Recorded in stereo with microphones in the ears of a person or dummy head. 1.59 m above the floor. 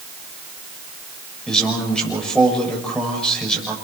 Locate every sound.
1.5 s a man speaking: 5° left (ahead or behind), 7 m